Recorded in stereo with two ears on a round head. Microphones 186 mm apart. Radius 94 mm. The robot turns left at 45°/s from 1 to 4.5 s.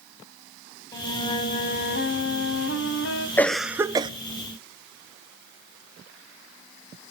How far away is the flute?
About 2.5 m.